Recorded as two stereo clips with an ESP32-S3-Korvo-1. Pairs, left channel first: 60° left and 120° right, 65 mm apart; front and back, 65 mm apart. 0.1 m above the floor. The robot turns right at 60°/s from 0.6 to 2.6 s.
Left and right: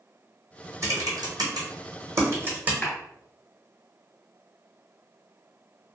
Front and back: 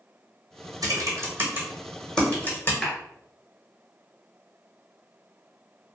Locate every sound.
0.8 s typing on a keyboard: 160° right, 1.1 m; by 2.7 s 55° right, 1.1 m
2.8 s a clap: 80° left, 1.1 m